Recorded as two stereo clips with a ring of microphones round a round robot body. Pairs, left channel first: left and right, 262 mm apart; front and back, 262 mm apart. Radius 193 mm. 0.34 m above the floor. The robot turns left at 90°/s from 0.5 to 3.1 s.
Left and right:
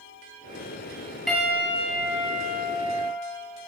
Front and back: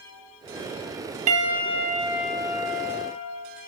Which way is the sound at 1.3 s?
Straight behind.